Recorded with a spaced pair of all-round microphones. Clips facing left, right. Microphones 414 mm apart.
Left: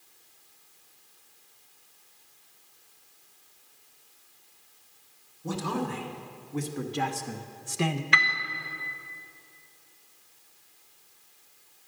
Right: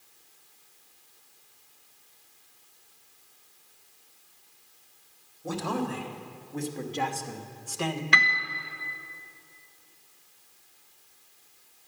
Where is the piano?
55° right (ahead or behind), 0.7 m.